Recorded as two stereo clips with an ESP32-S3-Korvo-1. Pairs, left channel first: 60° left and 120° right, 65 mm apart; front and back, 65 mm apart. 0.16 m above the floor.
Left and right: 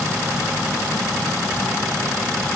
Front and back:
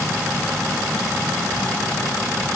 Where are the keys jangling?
I don't hear keys jangling.